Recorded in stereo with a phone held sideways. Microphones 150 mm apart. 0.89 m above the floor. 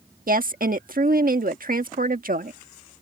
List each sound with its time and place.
0.3 s a woman speaking: 70° right (ahead or behind)